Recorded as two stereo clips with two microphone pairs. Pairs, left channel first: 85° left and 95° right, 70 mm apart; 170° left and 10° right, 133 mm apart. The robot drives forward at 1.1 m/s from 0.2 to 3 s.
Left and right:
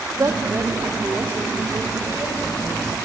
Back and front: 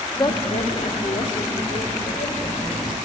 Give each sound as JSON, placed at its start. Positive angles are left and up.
{"t": 0.2, "sound": "a woman speaking", "azimuth_deg": -135, "distance_m": 1.1}